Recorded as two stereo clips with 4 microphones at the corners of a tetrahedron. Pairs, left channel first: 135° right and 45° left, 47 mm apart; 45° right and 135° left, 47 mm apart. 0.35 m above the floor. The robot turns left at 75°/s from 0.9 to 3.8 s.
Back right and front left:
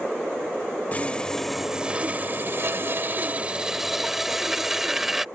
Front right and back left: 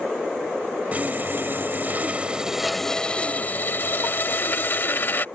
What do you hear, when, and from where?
0.9 s sawing: straight behind; by 5.2 s 35° right